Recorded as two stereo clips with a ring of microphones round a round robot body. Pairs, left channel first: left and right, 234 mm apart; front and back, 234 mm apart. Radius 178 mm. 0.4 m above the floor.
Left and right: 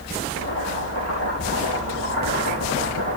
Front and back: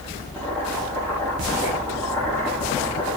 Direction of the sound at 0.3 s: 105° right.